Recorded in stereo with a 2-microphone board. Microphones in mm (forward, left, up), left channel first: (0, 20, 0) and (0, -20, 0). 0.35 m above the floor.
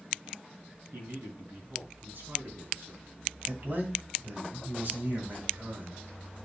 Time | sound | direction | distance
0.9 | a man speaking | 65° right (ahead or behind) | 3.5 m
3.5 | a man speaking | 55° right (ahead or behind) | 3 m